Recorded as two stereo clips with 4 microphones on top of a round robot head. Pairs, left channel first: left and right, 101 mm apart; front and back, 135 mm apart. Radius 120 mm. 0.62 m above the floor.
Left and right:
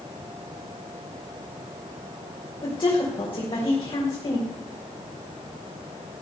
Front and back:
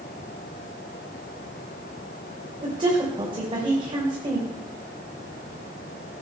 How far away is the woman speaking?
About 3.5 m.